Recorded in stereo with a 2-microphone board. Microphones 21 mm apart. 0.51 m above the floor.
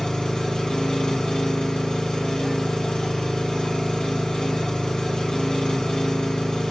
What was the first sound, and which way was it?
An engine running, 40° left (ahead or behind).